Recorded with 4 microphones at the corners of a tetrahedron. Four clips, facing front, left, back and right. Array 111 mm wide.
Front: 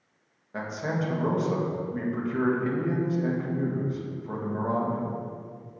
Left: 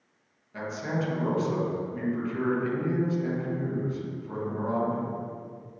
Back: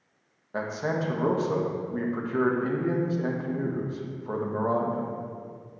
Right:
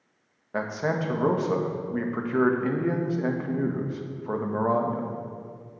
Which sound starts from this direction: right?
A man speaking, at 0.5 s.